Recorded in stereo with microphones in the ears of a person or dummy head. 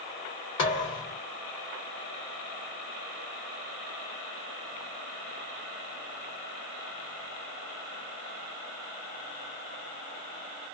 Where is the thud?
20° left (ahead or behind), 1.5 m.